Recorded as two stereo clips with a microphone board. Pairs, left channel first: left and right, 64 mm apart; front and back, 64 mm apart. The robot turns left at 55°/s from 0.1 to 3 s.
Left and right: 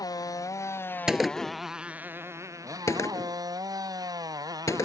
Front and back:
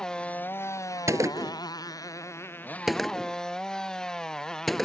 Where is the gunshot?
165° right; by 4.8 s 90° left.